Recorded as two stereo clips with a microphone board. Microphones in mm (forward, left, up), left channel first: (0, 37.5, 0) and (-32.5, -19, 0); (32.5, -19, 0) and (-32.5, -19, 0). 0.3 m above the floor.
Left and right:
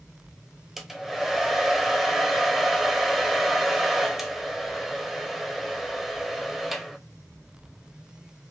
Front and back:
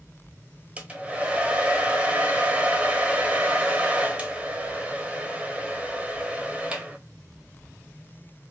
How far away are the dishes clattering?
I don't hear dishes clattering.